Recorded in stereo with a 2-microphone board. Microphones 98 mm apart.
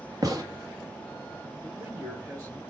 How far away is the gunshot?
About 1.4 m.